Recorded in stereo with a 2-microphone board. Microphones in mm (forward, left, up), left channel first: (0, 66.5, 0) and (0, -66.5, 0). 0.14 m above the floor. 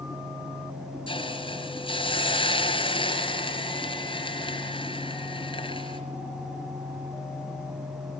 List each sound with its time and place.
1.1 s a hiss: 40° left (ahead or behind), 2.5 m